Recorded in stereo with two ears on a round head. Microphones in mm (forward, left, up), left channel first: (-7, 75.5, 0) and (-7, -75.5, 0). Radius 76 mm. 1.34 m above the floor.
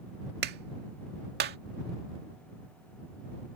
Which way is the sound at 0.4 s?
60° right (ahead or behind).